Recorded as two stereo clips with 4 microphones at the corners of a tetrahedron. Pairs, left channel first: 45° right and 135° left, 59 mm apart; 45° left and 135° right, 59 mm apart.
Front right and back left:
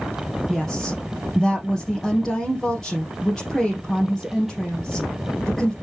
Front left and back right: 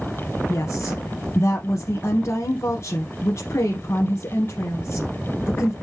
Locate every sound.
0.5 s a woman speaking: 40° left, 2.0 m